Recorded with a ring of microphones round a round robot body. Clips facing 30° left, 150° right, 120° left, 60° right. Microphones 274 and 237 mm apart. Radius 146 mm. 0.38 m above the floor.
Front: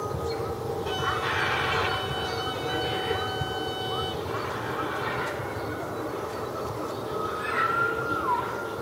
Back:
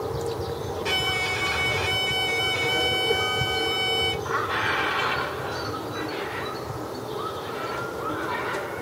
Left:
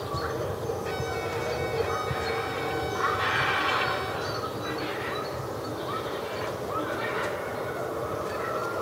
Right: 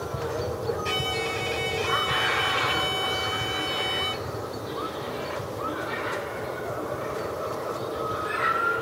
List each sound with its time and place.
0.8 s a violin: 105° right